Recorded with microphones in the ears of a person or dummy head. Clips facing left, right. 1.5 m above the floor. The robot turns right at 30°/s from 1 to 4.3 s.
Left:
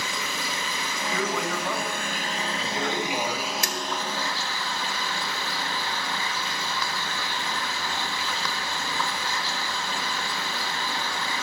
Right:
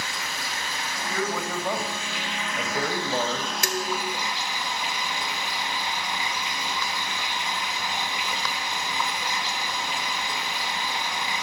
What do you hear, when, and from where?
0.0 s running water: 100° left, 2 m; by 11.4 s 160° right, 2 m
1.1 s a man speaking: straight behind, 7 m; by 3.5 s 110° right, 7 m
3.6 s dishes clattering: 60° right (ahead or behind), 0.8 m; by 4.2 s 50° right (ahead or behind), 0.8 m